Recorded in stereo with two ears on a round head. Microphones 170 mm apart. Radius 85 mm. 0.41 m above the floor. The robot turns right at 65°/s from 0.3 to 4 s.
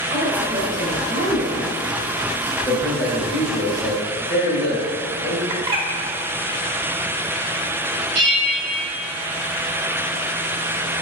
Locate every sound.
0.1 s a woman speaking: 155° right, 1.9 m; by 1.7 s 65° right, 1.9 m
2.6 s a man speaking: 10° right, 1.6 m; by 5.4 s 80° left, 1.6 m
5.5 s a bird: 30° right (ahead or behind), 0.8 m
8.2 s a bell: 60° right (ahead or behind), 2.5 m